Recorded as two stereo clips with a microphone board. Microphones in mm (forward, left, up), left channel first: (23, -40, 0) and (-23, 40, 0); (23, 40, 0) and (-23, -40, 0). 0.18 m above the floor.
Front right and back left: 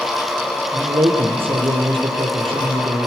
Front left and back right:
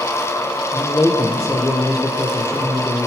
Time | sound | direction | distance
0.7 | a man speaking | 110° left | 5.5 m